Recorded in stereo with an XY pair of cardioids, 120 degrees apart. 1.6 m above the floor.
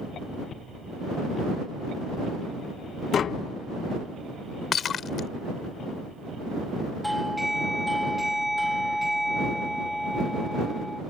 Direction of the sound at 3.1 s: 45° left.